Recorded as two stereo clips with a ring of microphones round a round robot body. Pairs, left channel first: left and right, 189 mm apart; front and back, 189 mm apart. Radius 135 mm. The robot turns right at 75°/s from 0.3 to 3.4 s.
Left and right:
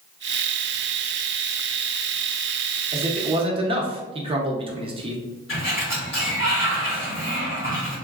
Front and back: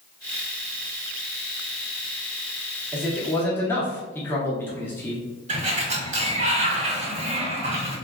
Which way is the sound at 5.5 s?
130° left.